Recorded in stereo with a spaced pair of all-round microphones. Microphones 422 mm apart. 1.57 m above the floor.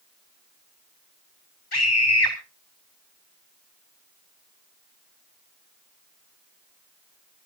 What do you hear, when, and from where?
1.7 s a scream: 65° left (ahead or behind), 1.4 m